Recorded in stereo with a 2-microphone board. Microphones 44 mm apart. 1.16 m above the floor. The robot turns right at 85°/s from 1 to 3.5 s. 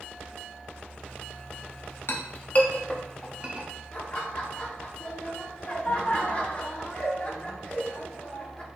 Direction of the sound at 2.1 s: 55° left (ahead or behind).